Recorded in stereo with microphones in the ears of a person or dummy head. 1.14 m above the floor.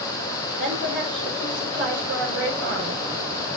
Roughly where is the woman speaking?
Right.